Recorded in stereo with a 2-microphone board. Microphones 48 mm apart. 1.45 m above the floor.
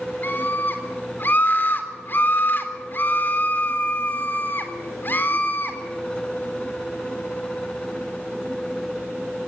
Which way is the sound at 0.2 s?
45° left (ahead or behind).